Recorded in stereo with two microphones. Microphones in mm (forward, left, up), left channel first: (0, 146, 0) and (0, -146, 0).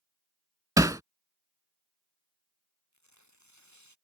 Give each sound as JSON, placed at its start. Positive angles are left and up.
{"t": 0.8, "sound": "hammering", "side_deg": -10}
{"t": 2.9, "sound": "tearing paper", "side_deg": 70}